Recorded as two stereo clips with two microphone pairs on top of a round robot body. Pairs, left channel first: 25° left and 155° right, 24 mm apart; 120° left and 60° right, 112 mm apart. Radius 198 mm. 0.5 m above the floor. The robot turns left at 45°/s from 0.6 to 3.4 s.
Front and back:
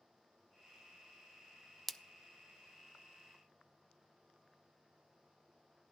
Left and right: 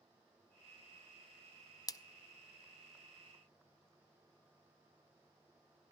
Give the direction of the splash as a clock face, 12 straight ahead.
9 o'clock.